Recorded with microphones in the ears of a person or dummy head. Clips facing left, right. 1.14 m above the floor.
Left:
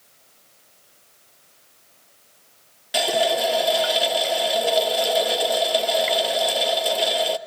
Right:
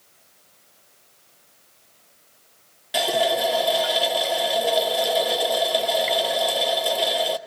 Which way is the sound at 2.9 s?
Centre (ahead or behind).